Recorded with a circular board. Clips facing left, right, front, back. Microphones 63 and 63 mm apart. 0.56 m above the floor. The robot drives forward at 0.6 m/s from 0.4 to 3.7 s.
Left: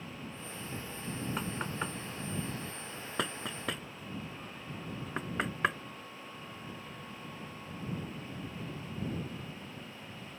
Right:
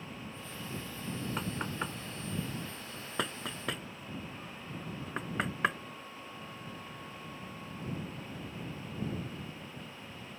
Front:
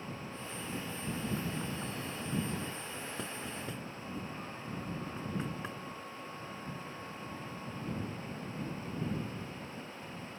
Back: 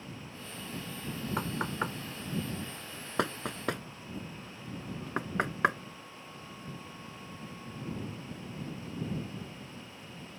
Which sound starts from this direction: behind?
Knocking, at 1.4 s.